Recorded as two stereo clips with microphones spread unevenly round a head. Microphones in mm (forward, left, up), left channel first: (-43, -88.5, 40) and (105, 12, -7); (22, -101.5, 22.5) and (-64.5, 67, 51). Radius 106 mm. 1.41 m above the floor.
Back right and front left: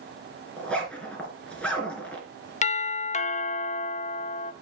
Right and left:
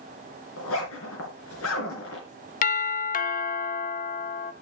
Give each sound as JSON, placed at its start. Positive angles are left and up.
{"t": 0.6, "sound": "a zipper", "azimuth_deg": -70, "distance_m": 3.0}
{"t": 2.6, "sound": "a doorbell", "azimuth_deg": -90, "distance_m": 0.6}